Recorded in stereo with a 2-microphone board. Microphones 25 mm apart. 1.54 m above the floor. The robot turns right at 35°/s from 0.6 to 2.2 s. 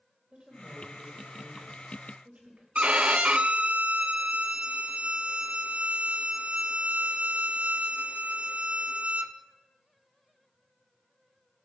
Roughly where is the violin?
Right.